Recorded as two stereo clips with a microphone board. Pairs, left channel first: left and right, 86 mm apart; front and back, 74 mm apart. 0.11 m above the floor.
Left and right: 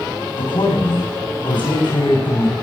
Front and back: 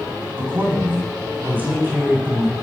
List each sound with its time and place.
0.4 s a man speaking: 115° left, 8.5 m; by 2.5 s 110° left, 10 m